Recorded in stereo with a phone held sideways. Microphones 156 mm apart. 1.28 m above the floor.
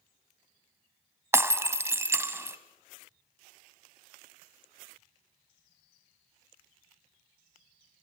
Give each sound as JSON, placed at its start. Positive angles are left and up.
{"t": 1.3, "sound": "breaking glass", "side_deg": -20, "distance_m": 1.2}